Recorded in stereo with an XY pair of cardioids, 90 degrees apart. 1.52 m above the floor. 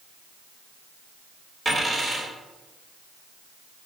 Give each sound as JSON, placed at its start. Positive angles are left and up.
{"t": 1.6, "sound": "a dropped coin", "azimuth_deg": -15, "distance_m": 2.5}